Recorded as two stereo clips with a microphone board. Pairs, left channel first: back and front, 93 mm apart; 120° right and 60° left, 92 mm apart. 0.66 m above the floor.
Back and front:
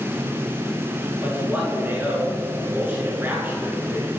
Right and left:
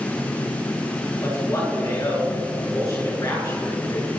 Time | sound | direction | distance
1.2 | a man speaking | 70° right | 8 m